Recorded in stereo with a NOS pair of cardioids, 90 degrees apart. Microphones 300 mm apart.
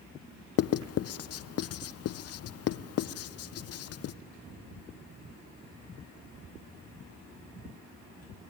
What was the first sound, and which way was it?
Writing, 55° left.